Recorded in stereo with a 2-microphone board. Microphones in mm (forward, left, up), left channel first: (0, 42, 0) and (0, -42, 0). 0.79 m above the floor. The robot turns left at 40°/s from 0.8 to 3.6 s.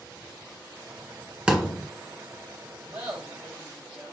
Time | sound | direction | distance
1.5 | a thud | 10° right (ahead or behind) | 1.6 m
2.9 | laughter | 30° right (ahead or behind) | 4 m